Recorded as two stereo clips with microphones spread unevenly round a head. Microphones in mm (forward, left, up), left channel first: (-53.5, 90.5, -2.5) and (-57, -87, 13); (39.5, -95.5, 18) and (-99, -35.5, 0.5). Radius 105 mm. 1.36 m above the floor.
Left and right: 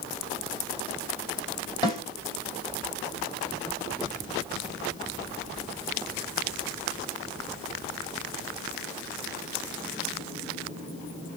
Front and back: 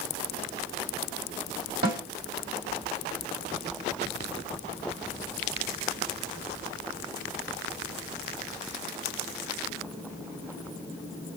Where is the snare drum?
155° left, 1.7 m.